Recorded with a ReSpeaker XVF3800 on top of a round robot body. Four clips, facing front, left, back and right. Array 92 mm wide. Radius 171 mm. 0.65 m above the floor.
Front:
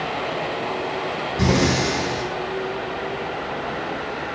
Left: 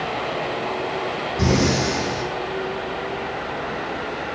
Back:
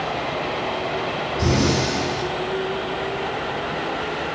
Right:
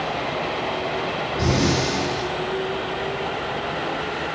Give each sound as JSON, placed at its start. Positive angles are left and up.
{"t": 1.4, "sound": "breathing", "azimuth_deg": 10, "distance_m": 9.0}